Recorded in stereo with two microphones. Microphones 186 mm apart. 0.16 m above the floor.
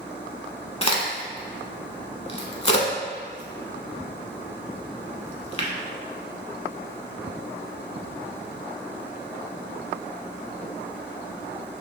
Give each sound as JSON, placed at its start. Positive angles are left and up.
{"t": 0.8, "sound": "a crack", "side_deg": 30, "distance_m": 0.7}